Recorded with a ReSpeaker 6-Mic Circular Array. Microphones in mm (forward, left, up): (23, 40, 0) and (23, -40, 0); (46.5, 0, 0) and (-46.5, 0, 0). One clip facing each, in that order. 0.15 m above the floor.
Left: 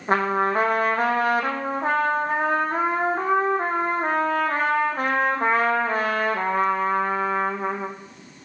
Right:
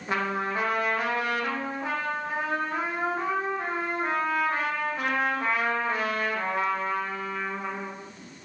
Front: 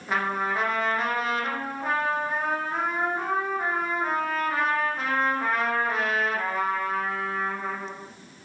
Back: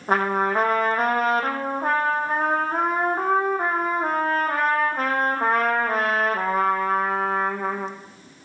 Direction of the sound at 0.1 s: 135° left.